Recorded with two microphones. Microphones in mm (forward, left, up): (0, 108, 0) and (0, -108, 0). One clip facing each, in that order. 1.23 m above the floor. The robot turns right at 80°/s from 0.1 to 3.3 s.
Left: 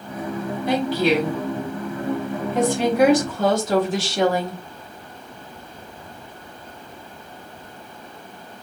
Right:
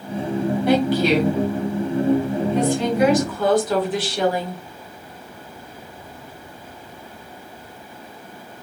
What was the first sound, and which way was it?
A woman speaking, 75° right.